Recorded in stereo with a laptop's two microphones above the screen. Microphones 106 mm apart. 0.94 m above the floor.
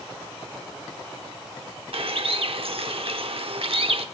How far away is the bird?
About 0.9 m.